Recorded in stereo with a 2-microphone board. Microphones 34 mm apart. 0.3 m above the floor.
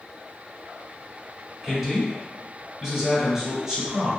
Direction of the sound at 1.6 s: 10° right (ahead or behind).